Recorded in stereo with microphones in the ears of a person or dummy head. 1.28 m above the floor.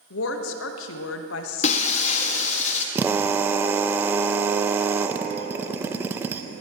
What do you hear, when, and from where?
0.1 s a woman speaking: 75° left (ahead or behind), 1.1 m
1.6 s breaking glass: 45° left (ahead or behind), 1.2 m
3.0 s a drill: 10° right (ahead or behind), 0.6 m